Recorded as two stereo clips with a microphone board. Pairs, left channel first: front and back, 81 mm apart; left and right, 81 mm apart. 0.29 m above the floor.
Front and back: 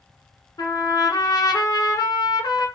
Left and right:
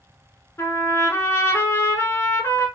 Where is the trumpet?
35° left, 0.7 m.